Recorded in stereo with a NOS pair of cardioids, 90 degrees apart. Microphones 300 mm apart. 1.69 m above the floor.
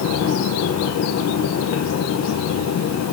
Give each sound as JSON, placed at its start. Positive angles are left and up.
{"t": 0.0, "sound": "a fan", "azimuth_deg": 65, "distance_m": 1.5}